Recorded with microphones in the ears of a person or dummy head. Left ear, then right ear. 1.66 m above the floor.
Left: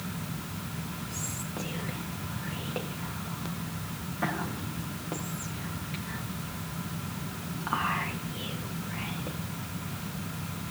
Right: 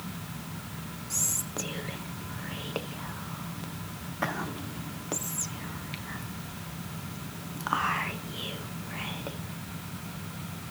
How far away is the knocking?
I don't hear knocking.